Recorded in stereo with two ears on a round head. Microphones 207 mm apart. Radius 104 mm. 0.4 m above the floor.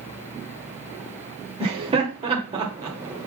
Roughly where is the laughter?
Right.